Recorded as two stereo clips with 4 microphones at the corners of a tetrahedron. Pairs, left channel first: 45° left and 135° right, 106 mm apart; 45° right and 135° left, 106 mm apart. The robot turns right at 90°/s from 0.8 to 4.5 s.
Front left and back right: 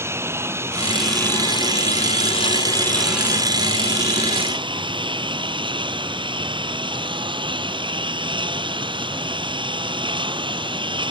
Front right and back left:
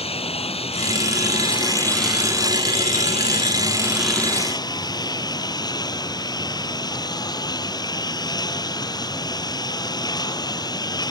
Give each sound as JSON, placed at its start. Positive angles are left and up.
{"t": 0.0, "sound": "a lawn mower", "azimuth_deg": -70}